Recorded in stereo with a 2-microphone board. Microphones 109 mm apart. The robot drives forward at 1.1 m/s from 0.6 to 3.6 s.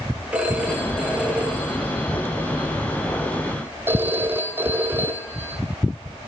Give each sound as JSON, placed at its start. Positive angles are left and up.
{"t": 0.3, "sound": "a phone ringing", "side_deg": -10, "distance_m": 6.5}